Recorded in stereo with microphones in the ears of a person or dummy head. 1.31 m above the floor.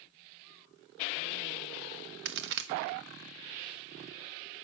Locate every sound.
2.2 s a crack: 60° right (ahead or behind), 0.9 m